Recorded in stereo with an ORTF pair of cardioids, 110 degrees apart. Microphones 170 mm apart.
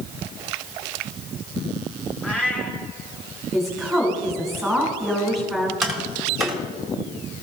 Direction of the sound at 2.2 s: 5° left.